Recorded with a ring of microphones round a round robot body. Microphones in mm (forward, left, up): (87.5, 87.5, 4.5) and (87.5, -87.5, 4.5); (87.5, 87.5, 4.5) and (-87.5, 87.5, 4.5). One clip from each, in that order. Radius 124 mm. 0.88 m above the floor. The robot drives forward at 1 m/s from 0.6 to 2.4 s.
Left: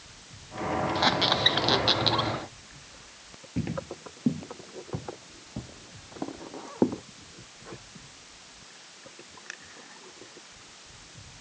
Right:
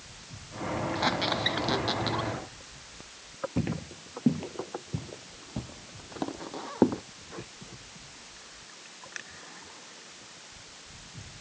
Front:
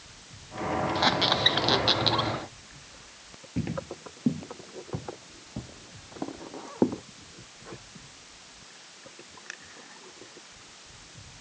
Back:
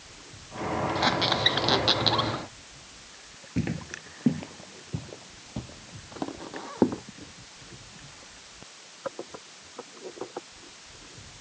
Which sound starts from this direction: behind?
Footsteps, at 3.6 s.